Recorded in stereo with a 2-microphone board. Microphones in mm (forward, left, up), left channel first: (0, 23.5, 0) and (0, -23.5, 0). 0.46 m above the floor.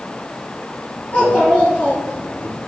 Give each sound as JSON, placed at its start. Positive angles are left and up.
{"t": 1.1, "sound": "a child speaking", "side_deg": 35, "distance_m": 3.5}